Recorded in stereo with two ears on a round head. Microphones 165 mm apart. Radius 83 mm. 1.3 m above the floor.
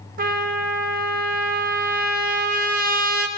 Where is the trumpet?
50° right (ahead or behind), 0.8 m.